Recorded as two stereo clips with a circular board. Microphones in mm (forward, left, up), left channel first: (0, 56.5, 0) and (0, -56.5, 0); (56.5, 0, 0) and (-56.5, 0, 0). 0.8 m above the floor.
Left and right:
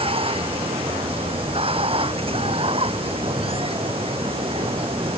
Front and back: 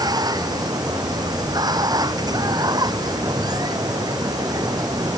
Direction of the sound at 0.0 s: 125° right.